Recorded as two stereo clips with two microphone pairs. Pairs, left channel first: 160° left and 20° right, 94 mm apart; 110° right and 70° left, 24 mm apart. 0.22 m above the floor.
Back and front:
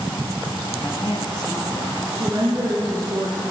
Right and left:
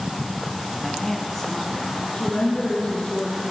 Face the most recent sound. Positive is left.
turn(degrees=-60)